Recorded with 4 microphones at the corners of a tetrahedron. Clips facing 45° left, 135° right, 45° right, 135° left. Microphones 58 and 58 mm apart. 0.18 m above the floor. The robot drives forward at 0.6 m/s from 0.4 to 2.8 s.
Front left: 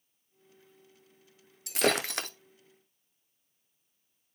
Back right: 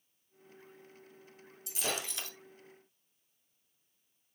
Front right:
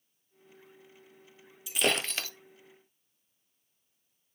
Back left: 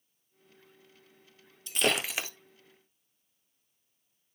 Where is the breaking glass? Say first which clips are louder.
Front left 10 dB, even; 40° left, 0.7 m; by 2.3 s 70° left, 0.5 m.